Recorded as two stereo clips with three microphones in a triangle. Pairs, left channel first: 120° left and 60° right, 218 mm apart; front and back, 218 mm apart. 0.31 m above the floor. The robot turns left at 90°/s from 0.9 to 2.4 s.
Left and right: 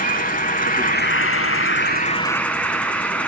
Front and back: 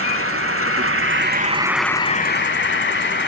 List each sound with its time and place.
0.0 s an insect: 170° left, 0.8 m; by 3.3 s 35° left, 0.8 m